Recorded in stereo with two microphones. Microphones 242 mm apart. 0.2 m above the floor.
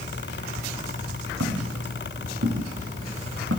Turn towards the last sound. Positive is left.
turn(degrees=-70)  # may be behind; listen again after turning